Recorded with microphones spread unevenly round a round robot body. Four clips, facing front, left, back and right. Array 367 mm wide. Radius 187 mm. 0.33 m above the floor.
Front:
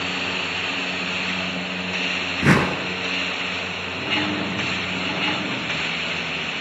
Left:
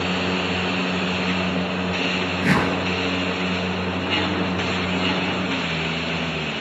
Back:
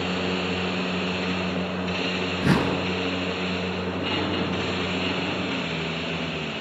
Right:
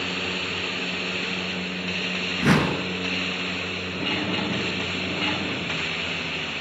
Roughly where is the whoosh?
Ahead.